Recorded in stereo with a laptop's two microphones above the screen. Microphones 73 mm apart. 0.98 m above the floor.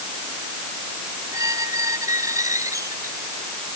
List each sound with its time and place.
1.3 s a squeak: 50° right (ahead or behind)